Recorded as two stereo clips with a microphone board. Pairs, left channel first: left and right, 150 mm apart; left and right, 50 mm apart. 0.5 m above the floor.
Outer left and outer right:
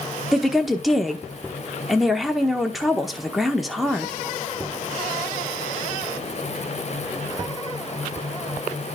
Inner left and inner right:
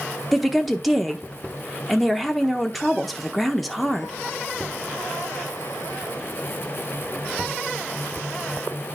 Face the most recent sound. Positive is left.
turn(degrees=0)  # may be behind; listen again after turning